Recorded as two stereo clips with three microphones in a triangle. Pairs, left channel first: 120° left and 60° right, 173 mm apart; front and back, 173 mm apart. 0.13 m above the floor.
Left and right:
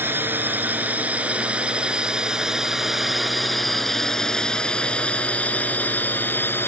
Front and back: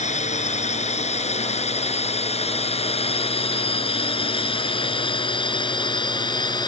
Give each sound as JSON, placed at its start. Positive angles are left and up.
{"t": 0.0, "sound": "a drone", "azimuth_deg": 15}